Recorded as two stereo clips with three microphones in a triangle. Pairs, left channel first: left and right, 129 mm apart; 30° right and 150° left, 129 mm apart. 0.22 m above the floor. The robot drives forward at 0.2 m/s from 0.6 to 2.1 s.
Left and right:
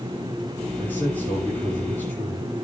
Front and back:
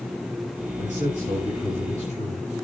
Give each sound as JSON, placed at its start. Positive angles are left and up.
{"t": 0.8, "sound": "a man speaking", "azimuth_deg": 165, "distance_m": 7.0}